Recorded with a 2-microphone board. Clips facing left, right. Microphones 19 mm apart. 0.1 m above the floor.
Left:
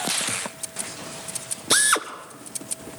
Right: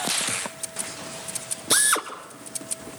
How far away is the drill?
About 1.3 m.